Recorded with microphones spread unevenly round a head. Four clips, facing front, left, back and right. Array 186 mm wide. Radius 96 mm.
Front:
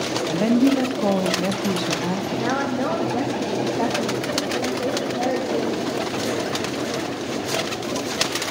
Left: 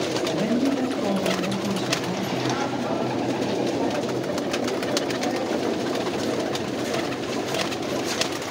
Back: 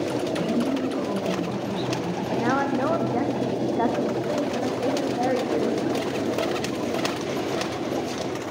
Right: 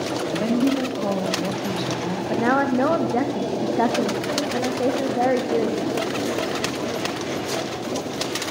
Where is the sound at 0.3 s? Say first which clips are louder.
Right 3 dB, front 10 dB; 10° right, 1.8 m.